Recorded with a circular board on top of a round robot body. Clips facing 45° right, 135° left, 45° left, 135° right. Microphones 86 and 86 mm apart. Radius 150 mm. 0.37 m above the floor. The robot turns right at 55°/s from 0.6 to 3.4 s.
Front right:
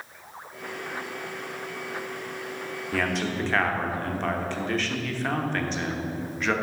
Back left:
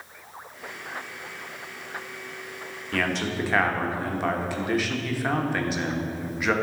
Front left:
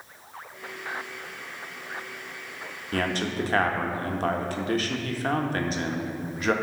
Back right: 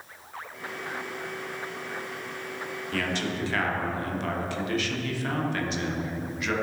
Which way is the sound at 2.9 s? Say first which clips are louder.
Back left 1 dB, front left 3 dB; 30° left.